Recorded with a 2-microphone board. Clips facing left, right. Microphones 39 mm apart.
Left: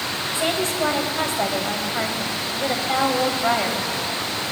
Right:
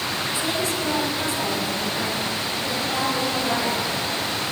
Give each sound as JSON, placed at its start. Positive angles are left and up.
{"t": 0.3, "sound": "a woman speaking", "side_deg": 55, "distance_m": 2.5}